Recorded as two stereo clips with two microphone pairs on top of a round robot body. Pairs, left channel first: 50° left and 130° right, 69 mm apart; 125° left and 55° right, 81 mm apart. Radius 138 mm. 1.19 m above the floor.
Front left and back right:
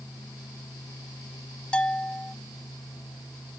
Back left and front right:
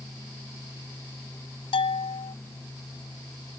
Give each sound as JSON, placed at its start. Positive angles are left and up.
{"t": 1.7, "sound": "a bell", "azimuth_deg": 125}